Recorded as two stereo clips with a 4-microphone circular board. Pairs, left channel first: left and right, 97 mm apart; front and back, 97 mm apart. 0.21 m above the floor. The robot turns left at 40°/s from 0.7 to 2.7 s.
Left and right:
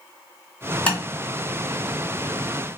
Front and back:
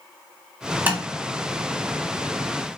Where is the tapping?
140° left, 1.5 m; by 1.0 s 135° left, 1.5 m.